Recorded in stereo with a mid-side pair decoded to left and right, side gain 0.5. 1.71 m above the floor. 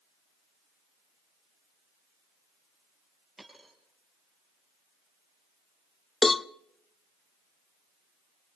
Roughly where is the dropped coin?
Ahead.